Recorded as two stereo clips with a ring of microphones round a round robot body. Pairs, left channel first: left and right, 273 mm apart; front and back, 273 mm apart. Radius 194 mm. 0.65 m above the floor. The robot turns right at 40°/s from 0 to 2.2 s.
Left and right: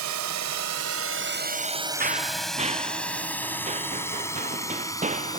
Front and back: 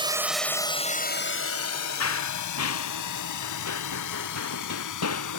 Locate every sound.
0.0 s a drone: 110° right; by 5.4 s 15° left
2.0 s running footsteps: 30° right; by 5.4 s 25° right